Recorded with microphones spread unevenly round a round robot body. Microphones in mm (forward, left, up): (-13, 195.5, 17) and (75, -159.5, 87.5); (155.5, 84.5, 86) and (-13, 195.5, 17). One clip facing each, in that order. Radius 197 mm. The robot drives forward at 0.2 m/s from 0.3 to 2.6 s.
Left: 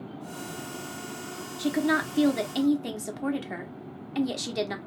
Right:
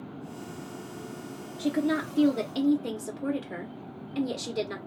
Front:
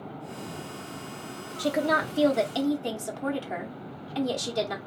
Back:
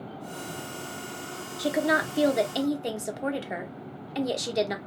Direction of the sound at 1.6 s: 120° left.